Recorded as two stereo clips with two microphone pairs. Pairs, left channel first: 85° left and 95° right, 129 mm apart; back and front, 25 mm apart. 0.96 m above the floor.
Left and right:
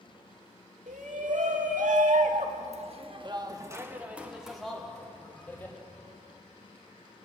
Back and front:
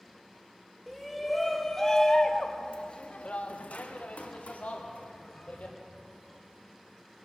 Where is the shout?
85° right, 2 m; by 5.8 s 160° left, 2.5 m.